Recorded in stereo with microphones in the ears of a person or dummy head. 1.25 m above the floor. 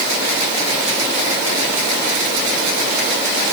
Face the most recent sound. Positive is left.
No sound to turn to.